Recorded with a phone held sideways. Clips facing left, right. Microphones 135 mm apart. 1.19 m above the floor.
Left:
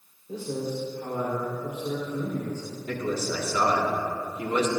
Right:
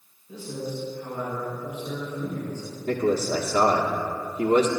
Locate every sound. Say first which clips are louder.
0.3 s a man speaking: left 2 dB; 85° left, 3.5 m
2.9 s a man speaking: right 6 dB; 70° right (ahead or behind), 1.5 m